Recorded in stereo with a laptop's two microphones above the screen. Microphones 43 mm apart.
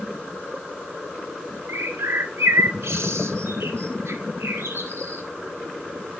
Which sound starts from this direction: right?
A bird, at 1.7 s.